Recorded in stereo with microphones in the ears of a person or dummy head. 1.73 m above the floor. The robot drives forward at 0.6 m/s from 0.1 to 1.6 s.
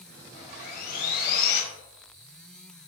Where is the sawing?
35° left (ahead or behind), 1.3 m; by 1.6 s 70° left (ahead or behind), 0.9 m.